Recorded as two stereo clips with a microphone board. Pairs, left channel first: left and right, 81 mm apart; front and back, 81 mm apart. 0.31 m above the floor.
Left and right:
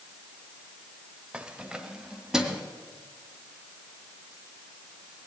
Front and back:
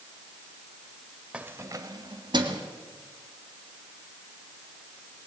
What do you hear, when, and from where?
1.3 s keys jangling: 135° right, 0.7 m; by 2.6 s 170° right, 1.9 m